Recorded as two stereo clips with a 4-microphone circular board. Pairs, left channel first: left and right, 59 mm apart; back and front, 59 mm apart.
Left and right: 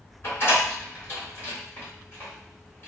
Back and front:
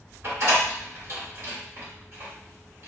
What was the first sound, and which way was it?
A door slam, 40° left.